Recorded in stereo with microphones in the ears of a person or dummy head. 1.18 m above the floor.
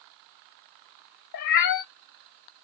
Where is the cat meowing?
50° left (ahead or behind), 0.5 m.